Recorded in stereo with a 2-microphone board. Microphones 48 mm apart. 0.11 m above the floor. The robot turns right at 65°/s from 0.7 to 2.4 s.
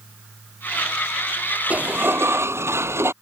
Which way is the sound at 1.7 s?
145° right.